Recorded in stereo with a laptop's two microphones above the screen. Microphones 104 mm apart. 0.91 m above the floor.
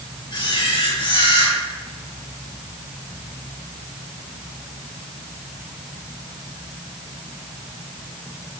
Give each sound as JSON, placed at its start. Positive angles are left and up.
{"t": 0.3, "sound": "a camera shutter", "side_deg": 45, "distance_m": 3.5}